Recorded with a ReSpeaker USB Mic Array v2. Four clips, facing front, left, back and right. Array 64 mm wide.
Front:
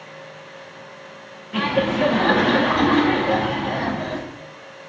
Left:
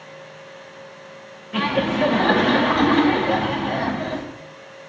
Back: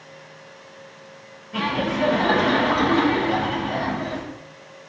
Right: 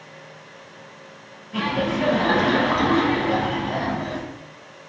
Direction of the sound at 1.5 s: 55° left.